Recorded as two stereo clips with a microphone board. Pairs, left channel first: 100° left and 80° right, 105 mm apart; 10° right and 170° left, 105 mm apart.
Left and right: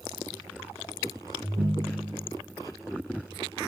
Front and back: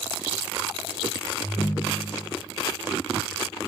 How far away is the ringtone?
About 5.5 m.